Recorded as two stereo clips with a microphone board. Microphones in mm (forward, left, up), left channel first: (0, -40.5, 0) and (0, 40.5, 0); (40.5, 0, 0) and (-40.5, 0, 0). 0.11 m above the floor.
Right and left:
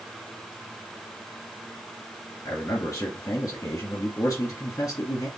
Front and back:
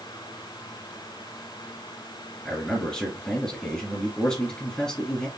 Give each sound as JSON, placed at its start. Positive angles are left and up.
{"t": 2.5, "sound": "a man speaking", "azimuth_deg": -75, "distance_m": 1.9}